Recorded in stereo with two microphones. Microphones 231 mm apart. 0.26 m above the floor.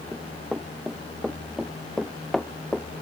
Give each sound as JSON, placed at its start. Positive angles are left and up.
{"t": 0.1, "sound": "running footsteps", "side_deg": -5}